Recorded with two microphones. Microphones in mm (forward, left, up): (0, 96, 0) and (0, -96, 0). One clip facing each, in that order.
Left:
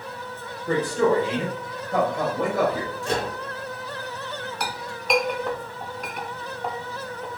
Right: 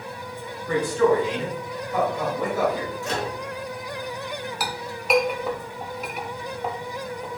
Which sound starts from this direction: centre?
A clink, at 4.6 s.